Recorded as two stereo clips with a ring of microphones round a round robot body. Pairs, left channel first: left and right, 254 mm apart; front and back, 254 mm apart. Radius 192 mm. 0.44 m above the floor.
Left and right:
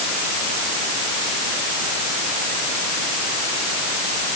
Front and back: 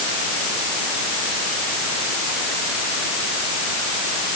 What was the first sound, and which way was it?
Only background noise.